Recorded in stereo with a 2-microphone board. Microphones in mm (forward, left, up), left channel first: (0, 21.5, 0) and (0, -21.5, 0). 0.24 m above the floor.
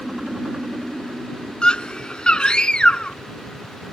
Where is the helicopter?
15° right (ahead or behind); by 3.9 s 45° right (ahead or behind).